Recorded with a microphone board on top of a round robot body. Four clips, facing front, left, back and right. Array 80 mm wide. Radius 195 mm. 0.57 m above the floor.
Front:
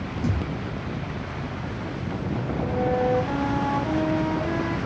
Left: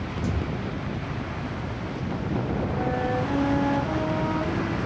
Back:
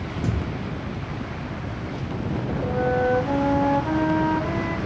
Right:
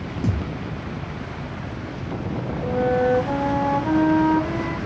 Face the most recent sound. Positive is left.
turn(degrees=-105)